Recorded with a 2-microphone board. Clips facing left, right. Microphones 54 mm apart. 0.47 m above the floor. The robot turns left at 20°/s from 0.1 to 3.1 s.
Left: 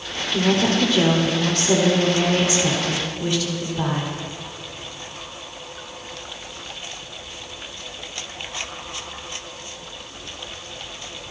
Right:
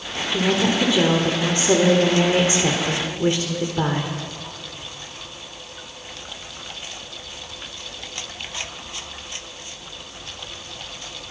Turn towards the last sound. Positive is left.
turn(degrees=-60)